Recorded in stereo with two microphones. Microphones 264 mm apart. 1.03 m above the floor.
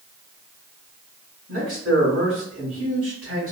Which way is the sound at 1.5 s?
55° right (ahead or behind).